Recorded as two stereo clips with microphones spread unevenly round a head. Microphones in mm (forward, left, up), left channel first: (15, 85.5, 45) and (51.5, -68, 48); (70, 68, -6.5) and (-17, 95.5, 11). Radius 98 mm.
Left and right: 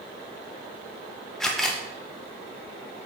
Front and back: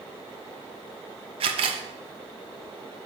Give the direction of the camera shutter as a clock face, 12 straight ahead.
6 o'clock.